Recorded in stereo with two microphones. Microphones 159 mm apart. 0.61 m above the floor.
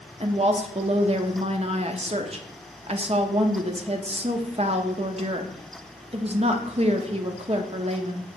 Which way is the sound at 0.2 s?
40° right (ahead or behind).